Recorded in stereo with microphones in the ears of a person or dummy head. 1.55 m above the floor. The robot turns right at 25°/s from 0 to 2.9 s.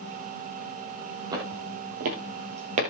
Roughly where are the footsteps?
Centre.